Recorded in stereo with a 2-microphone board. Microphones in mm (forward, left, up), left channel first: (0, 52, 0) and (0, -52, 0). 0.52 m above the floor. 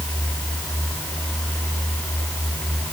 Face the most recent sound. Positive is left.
No sound to turn to.